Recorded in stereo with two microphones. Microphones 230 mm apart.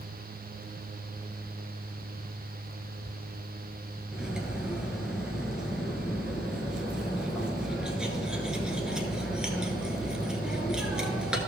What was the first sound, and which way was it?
Cutlery clinking, 5° right (ahead or behind).